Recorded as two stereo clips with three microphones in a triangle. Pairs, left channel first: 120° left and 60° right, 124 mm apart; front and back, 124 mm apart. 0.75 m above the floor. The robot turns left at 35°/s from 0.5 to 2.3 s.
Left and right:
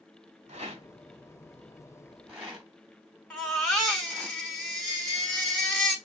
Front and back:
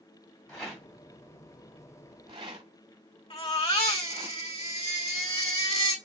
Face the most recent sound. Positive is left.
turn(degrees=35)